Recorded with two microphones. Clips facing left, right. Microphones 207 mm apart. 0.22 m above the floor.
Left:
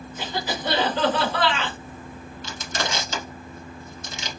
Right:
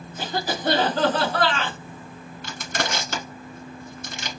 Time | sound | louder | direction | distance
0.2 | a cough | right 2 dB | 45° right (ahead or behind) | 1.8 m
2.4 | crushing | right 1 dB | 65° right (ahead or behind) | 1.1 m